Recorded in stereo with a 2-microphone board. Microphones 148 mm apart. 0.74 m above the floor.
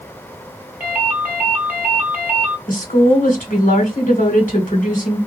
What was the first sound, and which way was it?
A ringtone, 10° right (ahead or behind).